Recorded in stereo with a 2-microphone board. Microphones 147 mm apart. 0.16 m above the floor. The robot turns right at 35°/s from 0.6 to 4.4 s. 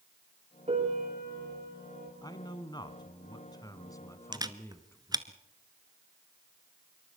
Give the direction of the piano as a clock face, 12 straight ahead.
4 o'clock.